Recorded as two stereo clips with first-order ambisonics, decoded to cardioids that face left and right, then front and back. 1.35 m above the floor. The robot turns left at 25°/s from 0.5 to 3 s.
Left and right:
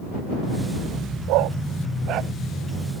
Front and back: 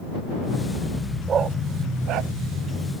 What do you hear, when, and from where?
1.3 s a dog barking: 115° right; by 2.3 s 140° right